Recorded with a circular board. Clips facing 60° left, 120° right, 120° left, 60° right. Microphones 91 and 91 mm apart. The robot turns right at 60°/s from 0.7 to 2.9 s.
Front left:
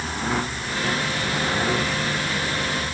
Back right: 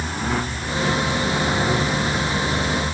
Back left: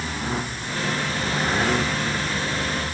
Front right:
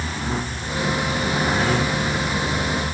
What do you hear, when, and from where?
Only background noise.